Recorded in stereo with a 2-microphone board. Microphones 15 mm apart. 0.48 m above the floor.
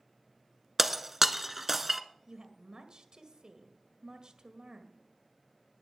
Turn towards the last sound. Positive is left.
turn(degrees=-60)  # may be behind; listen again after turning